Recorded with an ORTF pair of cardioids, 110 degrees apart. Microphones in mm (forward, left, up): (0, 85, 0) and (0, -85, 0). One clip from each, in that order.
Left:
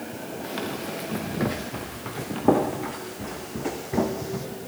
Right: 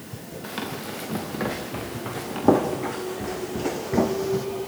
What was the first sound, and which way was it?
Running footsteps, 10° right.